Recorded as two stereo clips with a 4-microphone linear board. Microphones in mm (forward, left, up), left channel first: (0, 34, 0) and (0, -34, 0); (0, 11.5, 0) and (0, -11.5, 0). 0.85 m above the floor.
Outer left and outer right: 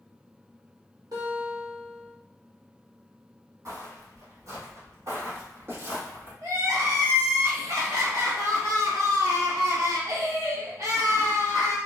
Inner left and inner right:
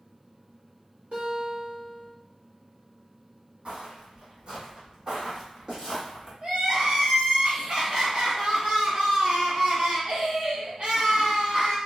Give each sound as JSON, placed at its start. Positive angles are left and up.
{"t": 1.1, "sound": "a guitar", "side_deg": -80, "distance_m": 1.2}
{"t": 3.6, "sound": "footsteps", "side_deg": -55, "distance_m": 1.4}
{"t": 6.4, "sound": "crying", "side_deg": -60, "distance_m": 1.0}